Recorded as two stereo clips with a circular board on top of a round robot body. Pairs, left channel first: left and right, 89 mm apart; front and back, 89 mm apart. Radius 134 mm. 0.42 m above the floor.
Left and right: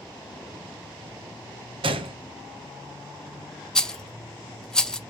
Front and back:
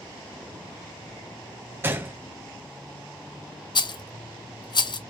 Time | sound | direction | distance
1.8 | a gunshot | 110° right | 0.8 m
3.8 | a rattle | 10° left | 0.8 m